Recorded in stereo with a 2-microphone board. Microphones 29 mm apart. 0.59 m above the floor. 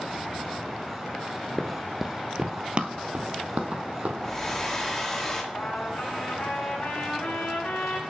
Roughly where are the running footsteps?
Centre.